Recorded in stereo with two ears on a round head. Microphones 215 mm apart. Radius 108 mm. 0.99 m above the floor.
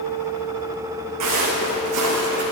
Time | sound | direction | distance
1.2 | footsteps | 75° right (ahead or behind) | 4 m